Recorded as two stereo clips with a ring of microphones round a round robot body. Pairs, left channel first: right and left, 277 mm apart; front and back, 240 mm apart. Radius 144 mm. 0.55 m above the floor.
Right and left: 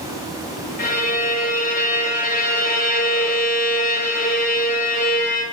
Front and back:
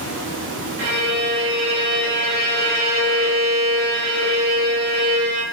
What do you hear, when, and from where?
0.8 s a violin: 150° right, 1.5 m